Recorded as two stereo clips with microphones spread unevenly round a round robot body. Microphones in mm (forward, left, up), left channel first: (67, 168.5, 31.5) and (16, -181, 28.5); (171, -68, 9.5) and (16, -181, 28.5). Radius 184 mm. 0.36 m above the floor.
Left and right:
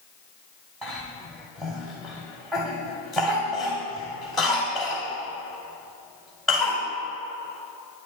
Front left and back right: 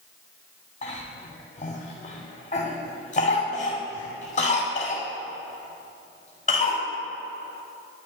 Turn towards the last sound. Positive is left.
turn(degrees=-10)